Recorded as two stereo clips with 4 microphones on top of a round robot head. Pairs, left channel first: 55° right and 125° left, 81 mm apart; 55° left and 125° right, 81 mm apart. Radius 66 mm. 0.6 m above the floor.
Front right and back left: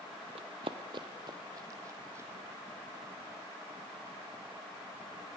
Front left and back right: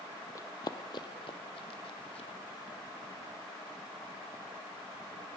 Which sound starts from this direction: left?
Running footsteps, at 0.3 s.